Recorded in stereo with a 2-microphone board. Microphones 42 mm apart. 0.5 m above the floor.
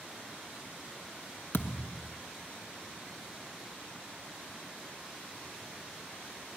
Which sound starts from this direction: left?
A thud, at 1.5 s.